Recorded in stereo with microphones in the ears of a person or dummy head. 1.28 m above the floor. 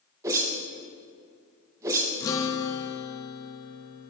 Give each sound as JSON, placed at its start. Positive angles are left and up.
{"t": 0.2, "sound": "a whoosh", "side_deg": -20, "distance_m": 0.8}
{"t": 2.2, "sound": "a guitar", "side_deg": 20, "distance_m": 0.5}